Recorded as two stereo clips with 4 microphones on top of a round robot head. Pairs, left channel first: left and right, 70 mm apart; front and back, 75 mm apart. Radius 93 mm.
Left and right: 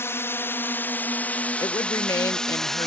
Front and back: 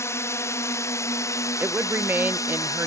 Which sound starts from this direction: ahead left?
A drone, at 0.0 s.